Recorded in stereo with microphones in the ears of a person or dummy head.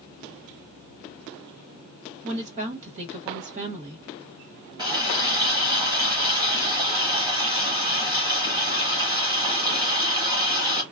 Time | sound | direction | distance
2.2 | a woman speaking | 30° right (ahead or behind) | 1.2 m
4.8 | a running tap | 25° right (ahead or behind) | 1.0 m